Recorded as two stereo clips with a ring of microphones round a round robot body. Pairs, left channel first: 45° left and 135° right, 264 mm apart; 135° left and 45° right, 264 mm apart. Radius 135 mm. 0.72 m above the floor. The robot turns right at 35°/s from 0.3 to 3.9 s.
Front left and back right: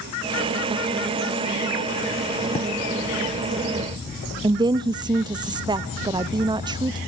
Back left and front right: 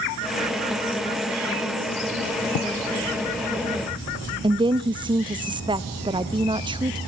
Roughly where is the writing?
Left.